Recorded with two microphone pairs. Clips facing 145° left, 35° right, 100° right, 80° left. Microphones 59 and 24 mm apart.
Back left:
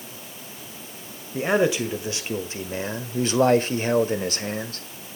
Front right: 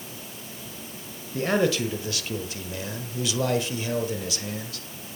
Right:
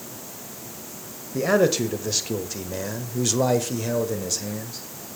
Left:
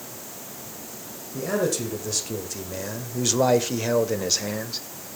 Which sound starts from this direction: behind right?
A man speaking, at 1.3 s.